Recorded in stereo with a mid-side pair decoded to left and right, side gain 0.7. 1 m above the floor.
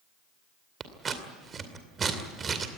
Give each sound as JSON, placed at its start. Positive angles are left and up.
{"t": 0.8, "sound": "scissors", "azimuth_deg": -30, "distance_m": 2.5}